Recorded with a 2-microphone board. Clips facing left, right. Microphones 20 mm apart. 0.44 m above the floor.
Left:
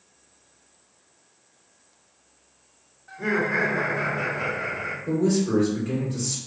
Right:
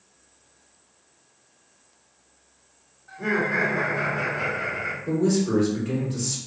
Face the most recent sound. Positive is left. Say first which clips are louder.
# even
turn(degrees=-20)  # may be behind; listen again after turning